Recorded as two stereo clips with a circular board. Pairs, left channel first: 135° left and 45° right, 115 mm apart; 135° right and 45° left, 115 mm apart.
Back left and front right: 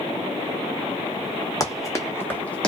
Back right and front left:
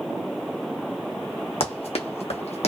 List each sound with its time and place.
1.6 s running footsteps: 165° right, 1.3 m; by 2.7 s 145° right, 0.9 m